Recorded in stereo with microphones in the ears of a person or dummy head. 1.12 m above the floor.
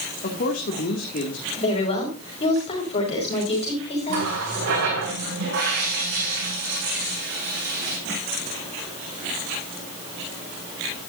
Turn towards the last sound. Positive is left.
turn(degrees=-65)  # may be behind; listen again after turning